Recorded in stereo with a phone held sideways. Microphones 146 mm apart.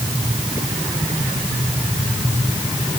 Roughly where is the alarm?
I don't hear an alarm.